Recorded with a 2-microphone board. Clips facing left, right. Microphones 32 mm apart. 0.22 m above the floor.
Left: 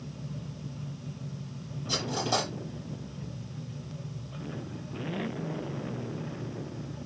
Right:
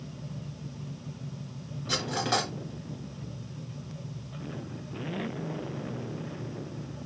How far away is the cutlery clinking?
About 1.9 m.